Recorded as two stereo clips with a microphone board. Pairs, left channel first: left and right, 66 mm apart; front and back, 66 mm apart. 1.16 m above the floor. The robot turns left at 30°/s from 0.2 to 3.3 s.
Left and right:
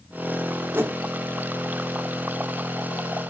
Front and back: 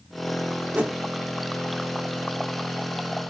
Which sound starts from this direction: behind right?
A whoosh, at 0.7 s.